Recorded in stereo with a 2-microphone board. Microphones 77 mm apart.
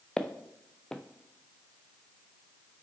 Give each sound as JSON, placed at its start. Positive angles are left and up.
{"t": 0.2, "sound": "footsteps", "side_deg": 10, "distance_m": 0.8}